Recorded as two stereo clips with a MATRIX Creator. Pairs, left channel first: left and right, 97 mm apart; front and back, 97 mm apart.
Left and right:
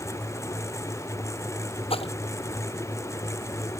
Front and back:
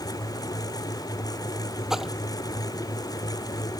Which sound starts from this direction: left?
A splash, at 1.9 s.